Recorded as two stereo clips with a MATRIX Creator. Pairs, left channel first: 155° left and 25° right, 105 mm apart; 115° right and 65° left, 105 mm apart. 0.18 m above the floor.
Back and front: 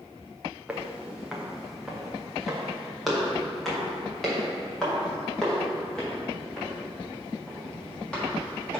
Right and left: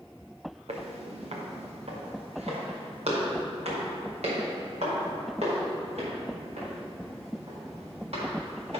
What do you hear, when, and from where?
0.7 s footsteps: 55° left, 1.7 m; by 8.8 s 75° left, 6.5 m